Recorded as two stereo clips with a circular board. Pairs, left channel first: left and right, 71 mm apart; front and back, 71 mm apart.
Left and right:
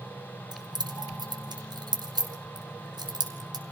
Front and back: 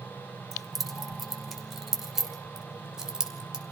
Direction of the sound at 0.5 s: 90° right.